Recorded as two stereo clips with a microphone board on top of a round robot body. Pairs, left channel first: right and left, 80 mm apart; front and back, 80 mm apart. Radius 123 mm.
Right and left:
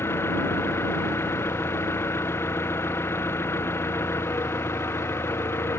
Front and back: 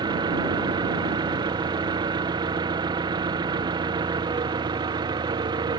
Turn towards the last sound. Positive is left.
turn(degrees=-150)